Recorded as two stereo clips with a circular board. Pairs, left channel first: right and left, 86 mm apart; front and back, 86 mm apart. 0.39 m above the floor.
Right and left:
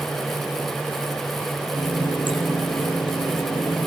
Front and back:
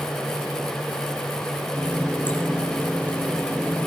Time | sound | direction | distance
1.8 | a running tap | 70° right | 7 m